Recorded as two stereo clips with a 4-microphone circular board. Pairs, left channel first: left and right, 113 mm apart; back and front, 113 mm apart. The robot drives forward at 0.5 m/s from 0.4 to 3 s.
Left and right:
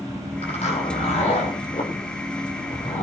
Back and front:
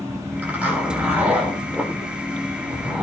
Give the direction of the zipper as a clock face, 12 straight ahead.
9 o'clock.